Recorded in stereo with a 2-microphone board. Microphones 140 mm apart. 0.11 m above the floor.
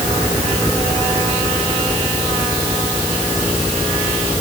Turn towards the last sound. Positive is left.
No sound to turn to.